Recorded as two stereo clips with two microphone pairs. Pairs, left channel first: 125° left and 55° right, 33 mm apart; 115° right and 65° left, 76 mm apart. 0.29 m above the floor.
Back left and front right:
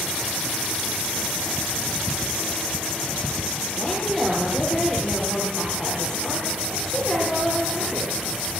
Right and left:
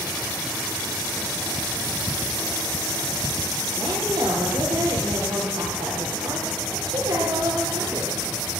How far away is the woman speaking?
About 7 m.